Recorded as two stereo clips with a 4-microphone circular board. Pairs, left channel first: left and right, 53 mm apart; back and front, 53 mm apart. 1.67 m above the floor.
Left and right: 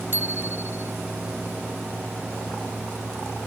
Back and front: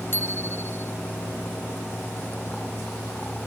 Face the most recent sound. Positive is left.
turn(degrees=-135)